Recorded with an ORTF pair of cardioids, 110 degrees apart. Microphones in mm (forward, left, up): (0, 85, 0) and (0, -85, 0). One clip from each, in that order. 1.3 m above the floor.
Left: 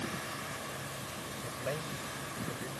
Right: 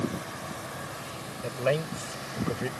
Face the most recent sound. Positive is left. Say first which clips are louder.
# right 12 dB
turn(degrees=-65)